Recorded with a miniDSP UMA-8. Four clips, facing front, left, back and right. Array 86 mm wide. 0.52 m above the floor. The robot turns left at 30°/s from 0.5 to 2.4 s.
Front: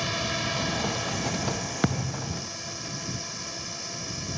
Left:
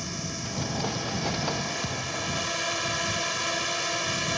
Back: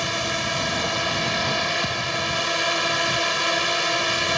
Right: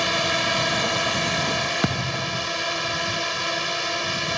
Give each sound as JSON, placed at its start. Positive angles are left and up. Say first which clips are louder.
{"t": 0.0, "sound": "a drone", "louder": "right 12 dB, back 4 dB", "azimuth_deg": -110}
{"t": 1.8, "sound": "a thud", "louder": "right 6 dB, back 3 dB", "azimuth_deg": -50}